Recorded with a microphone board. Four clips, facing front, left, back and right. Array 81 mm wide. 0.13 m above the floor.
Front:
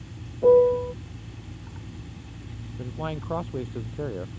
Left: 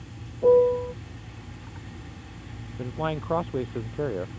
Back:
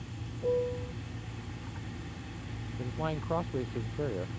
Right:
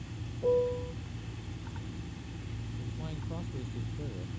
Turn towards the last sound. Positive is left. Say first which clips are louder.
# left 16 dB, front 2 dB
turn(degrees=85)